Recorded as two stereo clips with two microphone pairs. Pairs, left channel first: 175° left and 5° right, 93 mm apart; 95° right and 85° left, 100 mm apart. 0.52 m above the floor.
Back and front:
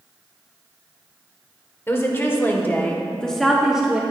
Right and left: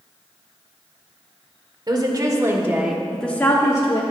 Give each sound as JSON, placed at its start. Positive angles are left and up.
{"t": 1.9, "sound": "a woman speaking", "azimuth_deg": 115, "distance_m": 1.8}